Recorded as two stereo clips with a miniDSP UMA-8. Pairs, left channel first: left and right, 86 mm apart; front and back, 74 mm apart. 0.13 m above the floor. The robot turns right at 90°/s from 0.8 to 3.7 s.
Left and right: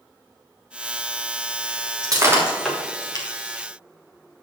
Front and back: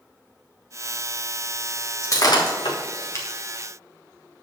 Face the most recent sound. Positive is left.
turn(degrees=100)